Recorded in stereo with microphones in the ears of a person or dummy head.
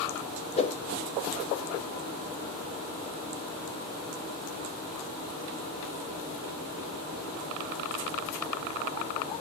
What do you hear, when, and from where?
0.6 s a whoosh: 30° left (ahead or behind), 0.5 m